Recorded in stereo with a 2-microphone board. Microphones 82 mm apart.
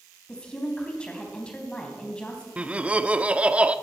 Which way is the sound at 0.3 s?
15° left (ahead or behind).